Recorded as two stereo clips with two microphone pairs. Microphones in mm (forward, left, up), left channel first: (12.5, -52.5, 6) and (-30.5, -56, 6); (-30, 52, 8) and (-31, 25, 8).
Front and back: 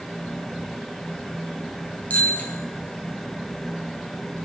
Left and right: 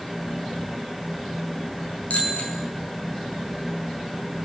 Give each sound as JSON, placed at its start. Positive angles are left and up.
{"t": 2.1, "sound": "a bicycle bell", "azimuth_deg": 55, "distance_m": 5.0}